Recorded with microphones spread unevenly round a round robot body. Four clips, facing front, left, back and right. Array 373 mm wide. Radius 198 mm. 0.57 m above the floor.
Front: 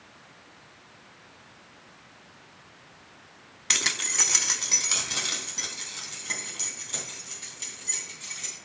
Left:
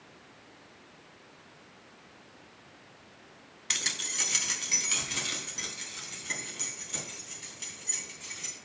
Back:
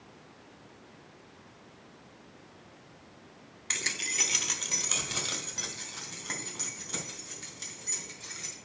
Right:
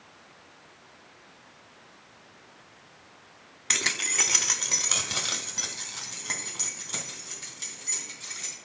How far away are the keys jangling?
About 0.7 m.